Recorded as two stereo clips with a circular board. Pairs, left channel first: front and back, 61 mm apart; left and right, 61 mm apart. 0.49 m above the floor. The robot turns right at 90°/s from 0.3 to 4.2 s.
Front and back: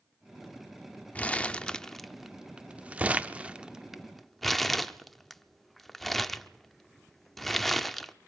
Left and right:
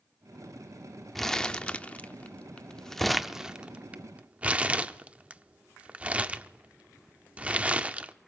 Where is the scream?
No scream in this recording.